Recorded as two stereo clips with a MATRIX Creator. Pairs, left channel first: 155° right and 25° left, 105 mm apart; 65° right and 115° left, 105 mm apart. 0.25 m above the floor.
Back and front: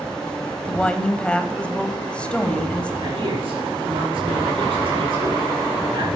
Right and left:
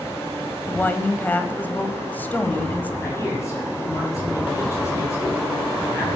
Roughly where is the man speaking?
Ahead.